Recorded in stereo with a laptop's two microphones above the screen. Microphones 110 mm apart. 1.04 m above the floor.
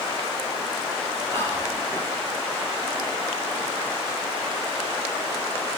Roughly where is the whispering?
Left.